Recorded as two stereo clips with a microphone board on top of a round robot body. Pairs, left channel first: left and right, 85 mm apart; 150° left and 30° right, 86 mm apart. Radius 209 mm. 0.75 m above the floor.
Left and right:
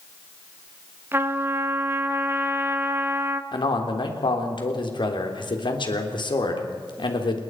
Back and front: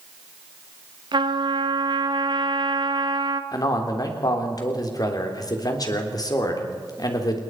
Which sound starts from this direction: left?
A man speaking, at 3.5 s.